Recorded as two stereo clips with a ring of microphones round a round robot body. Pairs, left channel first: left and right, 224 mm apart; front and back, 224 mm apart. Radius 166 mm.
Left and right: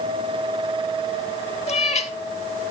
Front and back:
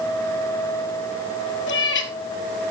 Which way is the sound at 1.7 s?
30° left.